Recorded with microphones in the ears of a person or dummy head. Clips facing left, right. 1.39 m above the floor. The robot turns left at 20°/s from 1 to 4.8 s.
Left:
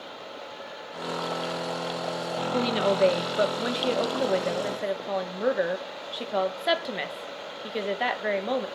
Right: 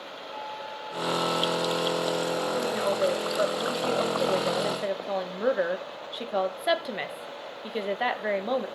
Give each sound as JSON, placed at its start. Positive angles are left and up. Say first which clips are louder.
{"t": 0.3, "sound": "a flute", "louder": "right 5 dB", "azimuth_deg": -105, "distance_m": 5.5}
{"t": 2.5, "sound": "a woman speaking", "louder": "left 6 dB", "azimuth_deg": 50, "distance_m": 1.2}